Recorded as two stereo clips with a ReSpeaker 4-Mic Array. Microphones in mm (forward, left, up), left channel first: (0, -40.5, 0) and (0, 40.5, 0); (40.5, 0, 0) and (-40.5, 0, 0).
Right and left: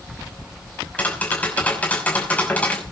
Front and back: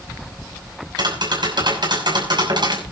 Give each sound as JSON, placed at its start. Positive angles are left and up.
{"t": 1.0, "sound": "tapping", "azimuth_deg": -160, "distance_m": 5.5}